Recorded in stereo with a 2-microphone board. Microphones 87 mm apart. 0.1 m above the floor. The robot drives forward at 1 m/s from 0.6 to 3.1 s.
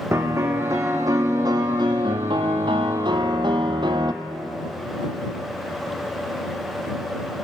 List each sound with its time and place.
0.1 s a piano: 35° right (ahead or behind), 2.5 m; by 4.1 s 60° right (ahead or behind), 1.5 m